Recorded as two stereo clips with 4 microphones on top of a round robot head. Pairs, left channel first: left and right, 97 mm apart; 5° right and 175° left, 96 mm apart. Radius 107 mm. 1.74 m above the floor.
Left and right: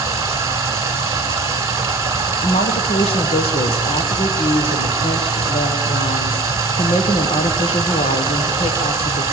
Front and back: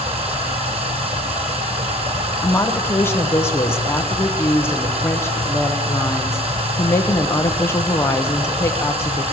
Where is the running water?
145° right, 2.0 m.